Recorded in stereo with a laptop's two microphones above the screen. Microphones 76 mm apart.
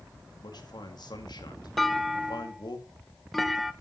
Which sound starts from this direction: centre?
A clunk, at 1.8 s.